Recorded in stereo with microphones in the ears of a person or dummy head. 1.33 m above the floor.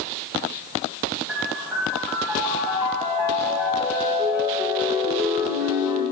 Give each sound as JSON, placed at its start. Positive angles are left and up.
{"t": 1.3, "sound": "a piano", "side_deg": -10, "distance_m": 0.6}